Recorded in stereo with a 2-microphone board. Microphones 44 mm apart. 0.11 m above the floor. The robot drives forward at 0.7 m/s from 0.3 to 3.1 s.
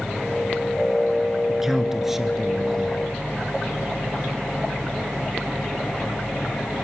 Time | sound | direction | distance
1.5 | a man speaking | 10° right (ahead or behind) | 1.1 m